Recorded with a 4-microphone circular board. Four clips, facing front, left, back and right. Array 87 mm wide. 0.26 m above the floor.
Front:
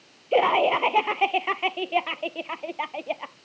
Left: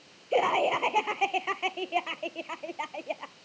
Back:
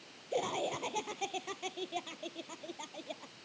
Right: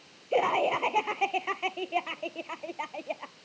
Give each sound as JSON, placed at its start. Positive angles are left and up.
{"t": 0.3, "sound": "laughter", "azimuth_deg": 5}